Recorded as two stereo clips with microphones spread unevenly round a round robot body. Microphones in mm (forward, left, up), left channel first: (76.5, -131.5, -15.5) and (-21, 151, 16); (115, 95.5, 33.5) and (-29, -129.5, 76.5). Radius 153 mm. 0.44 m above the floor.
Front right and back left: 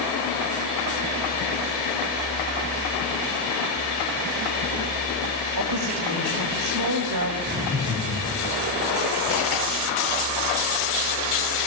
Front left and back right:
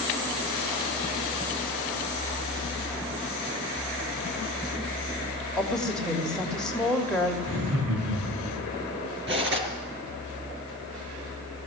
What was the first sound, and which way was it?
A woman speaking, 140° left.